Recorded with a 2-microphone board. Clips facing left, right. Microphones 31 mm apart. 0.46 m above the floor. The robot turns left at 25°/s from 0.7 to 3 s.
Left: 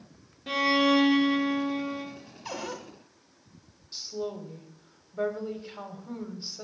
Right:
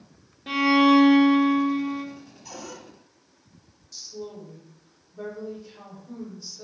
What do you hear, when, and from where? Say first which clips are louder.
0.5 s a violin: right 5 dB; 10° right (ahead or behind), 1.2 m; by 2.0 s 20° right (ahead or behind), 1.2 m
2.5 s a cupboard door: left 5 dB; 55° left (ahead or behind), 0.8 m; by 2.8 s 50° left (ahead or behind), 0.8 m
3.9 s a woman speaking: left 4 dB; 45° left (ahead or behind), 1.0 m